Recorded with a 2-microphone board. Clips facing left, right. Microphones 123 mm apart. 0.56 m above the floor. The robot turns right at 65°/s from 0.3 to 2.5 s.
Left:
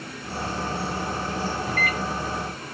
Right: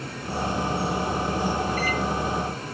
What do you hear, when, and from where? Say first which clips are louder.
1.7 s a microwave: right 2 dB; 75° left (ahead or behind), 1.8 m; by 2.0 s 55° left (ahead or behind), 1.8 m